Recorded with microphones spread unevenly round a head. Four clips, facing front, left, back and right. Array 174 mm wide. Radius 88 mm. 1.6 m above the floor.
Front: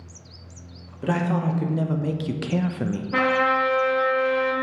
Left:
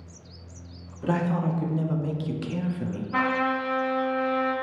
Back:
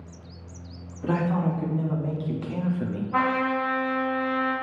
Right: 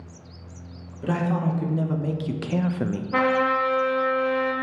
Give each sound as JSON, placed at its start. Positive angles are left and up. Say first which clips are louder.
{"t": 1.0, "sound": "a man speaking", "louder": "right 1 dB, front 1 dB", "azimuth_deg": 25, "distance_m": 1.7}
{"t": 3.1, "sound": "a trumpet", "louder": "right 4 dB, front 3 dB", "azimuth_deg": -10, "distance_m": 2.0}